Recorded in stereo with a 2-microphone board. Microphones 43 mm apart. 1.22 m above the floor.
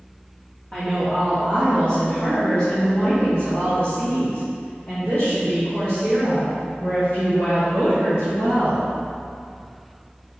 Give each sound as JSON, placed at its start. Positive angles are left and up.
{"t": 0.7, "sound": "a woman speaking", "side_deg": 25, "distance_m": 3.0}